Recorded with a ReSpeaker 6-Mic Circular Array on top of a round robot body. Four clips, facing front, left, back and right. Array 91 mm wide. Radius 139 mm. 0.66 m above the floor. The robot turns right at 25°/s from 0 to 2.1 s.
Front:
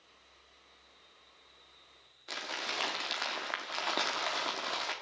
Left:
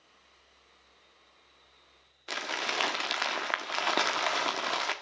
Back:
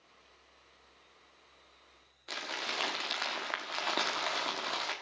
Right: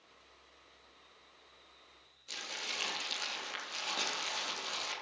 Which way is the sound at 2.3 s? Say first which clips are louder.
Left 11 dB, even; 95° left.